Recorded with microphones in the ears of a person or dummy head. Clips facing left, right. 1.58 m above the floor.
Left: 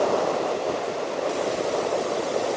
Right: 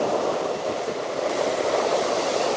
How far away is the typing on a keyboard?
I don't hear typing on a keyboard.